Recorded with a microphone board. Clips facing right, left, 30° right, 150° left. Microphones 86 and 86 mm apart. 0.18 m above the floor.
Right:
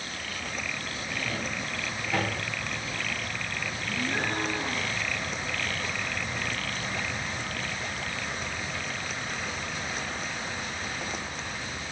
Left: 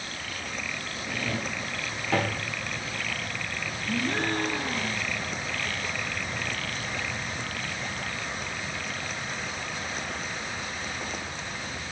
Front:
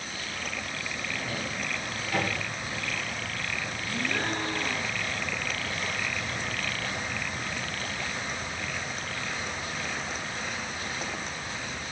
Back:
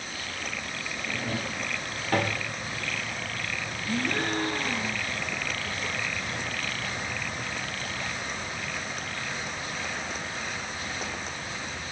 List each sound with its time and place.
1.1 s a drawer: 105° left, 5 m
3.9 s a gasp: 110° left, 4.5 m